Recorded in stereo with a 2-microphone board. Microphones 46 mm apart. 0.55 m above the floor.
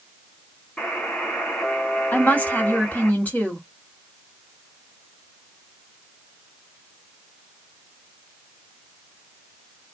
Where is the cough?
I don't hear a cough.